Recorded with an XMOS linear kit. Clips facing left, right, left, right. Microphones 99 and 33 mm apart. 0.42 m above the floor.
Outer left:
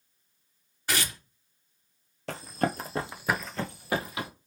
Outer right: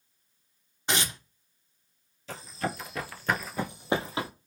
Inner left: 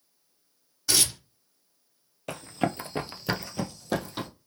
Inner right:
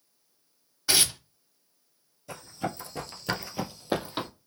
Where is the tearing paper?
25° right (ahead or behind), 0.6 m.